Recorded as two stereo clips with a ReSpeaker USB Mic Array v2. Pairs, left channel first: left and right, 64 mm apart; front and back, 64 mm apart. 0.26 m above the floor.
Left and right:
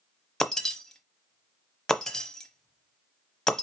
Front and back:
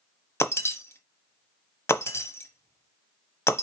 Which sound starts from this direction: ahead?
Breaking glass, at 0.4 s.